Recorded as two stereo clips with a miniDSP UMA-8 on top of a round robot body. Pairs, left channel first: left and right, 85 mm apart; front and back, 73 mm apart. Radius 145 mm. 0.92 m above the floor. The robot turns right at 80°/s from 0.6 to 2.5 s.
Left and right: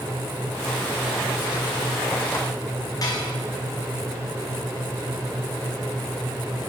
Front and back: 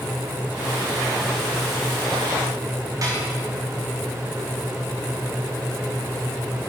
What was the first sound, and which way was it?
Dishes clattering, 135° left.